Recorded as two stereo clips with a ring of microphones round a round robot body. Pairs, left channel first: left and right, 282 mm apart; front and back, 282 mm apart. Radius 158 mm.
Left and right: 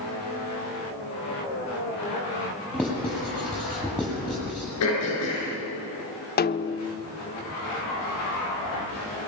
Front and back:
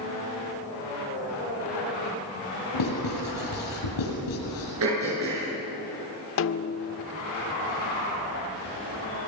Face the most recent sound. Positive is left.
turn(degrees=35)